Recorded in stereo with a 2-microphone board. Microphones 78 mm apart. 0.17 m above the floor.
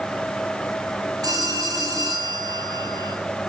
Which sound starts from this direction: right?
A phone ringing, at 1.2 s.